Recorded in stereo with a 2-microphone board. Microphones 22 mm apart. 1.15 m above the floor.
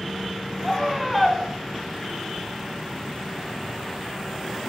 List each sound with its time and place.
0.6 s a scream: 5° right (ahead or behind), 3.5 m